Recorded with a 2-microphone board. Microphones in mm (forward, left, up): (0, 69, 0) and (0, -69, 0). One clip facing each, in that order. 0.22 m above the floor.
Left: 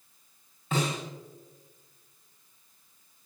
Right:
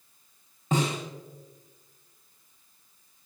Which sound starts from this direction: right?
A snare drum, at 0.7 s.